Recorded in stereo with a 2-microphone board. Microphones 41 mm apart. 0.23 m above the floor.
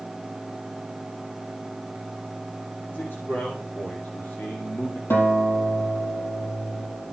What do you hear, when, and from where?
2.9 s a man speaking: 75° left (ahead or behind), 5 m; by 5.0 s 45° left (ahead or behind), 2.5 m
5.1 s a guitar: 75° left (ahead or behind), 4 m